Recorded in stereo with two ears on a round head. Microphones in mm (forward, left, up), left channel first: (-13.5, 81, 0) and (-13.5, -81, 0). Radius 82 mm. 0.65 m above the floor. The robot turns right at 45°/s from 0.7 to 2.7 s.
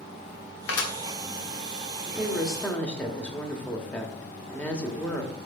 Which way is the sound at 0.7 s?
75° left (ahead or behind).